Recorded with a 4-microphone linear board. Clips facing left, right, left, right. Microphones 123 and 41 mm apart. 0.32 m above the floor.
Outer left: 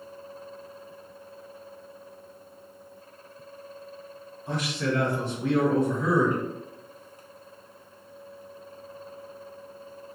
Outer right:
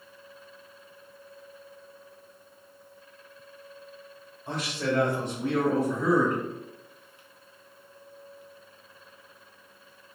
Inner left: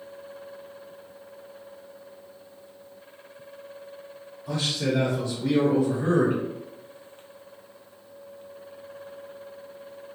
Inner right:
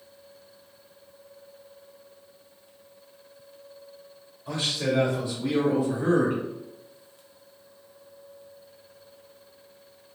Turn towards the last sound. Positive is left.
turn(degrees=5)  # may be behind; listen again after turning